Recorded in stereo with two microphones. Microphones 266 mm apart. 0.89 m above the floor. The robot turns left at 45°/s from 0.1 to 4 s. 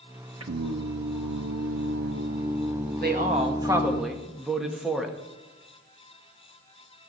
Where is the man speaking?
135° right, 1.4 m; by 5.2 s straight behind, 1.4 m.